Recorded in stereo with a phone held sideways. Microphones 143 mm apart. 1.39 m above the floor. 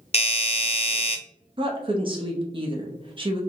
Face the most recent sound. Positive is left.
turn(degrees=-35)  # may be behind; listen again after turning